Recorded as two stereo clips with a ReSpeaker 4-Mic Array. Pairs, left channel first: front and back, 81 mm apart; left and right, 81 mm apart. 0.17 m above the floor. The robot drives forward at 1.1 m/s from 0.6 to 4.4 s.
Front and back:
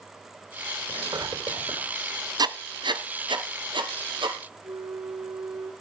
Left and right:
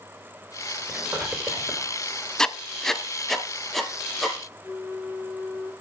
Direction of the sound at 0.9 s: 155° right.